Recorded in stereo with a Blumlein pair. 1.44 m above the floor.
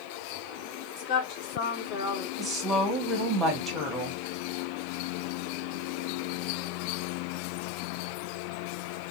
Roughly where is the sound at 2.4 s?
Ahead.